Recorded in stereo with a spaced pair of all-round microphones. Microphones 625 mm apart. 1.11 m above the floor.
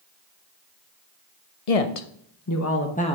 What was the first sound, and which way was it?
A woman speaking, 70° left (ahead or behind).